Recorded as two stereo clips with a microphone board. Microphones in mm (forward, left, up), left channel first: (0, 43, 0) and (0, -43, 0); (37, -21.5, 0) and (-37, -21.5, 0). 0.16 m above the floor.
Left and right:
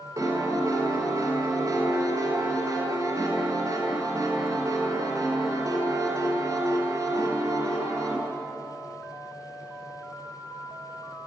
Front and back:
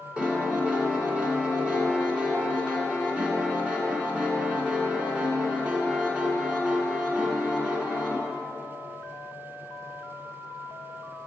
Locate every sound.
0.2 s a piano: 110° right, 1.6 m